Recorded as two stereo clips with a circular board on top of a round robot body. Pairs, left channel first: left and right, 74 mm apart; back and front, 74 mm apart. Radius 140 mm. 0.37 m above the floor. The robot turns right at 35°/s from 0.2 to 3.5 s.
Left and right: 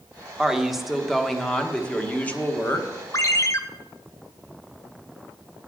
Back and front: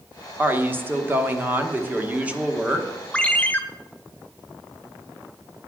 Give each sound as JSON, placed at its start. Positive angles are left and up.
{"t": 0.4, "sound": "a woman speaking", "azimuth_deg": -20, "distance_m": 1.4}
{"t": 3.1, "sound": "a ringtone", "azimuth_deg": 110, "distance_m": 1.1}